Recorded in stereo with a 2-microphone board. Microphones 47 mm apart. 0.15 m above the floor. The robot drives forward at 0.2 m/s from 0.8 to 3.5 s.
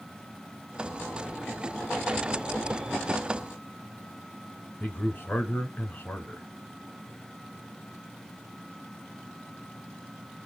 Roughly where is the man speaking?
Left.